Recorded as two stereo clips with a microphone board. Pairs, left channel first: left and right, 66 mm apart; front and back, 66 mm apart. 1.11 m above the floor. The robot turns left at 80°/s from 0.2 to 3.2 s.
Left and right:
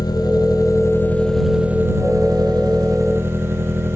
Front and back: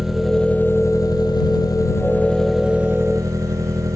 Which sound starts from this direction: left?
An engine running, at 0.0 s.